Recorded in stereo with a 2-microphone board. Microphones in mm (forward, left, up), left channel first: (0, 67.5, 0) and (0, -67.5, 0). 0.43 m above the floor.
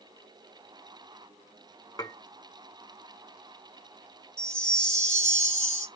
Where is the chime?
5° left (ahead or behind), 1.4 m.